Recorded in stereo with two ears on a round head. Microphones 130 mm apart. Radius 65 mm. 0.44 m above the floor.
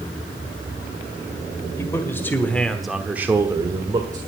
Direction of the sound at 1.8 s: 20° left (ahead or behind).